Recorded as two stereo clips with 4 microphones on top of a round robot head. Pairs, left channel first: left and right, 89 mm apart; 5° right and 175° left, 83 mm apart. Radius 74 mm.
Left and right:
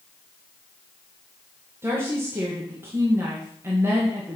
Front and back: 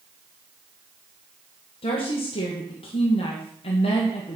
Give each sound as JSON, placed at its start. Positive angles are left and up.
{"t": 1.8, "sound": "a woman speaking", "azimuth_deg": -20, "distance_m": 1.8}